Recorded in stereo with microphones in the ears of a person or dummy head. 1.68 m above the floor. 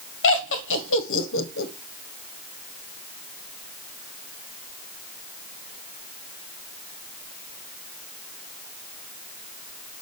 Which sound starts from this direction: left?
Laughter, at 0.2 s.